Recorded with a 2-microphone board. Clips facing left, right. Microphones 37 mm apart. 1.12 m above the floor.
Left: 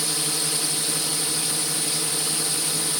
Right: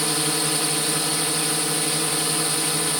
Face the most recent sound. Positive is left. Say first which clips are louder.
# right 4 dB
turn(degrees=-30)  # may be behind; listen again after turning